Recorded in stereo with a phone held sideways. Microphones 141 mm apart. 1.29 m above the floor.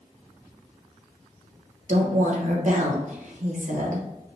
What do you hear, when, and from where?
1.9 s a woman speaking: 60° right (ahead or behind), 1.1 m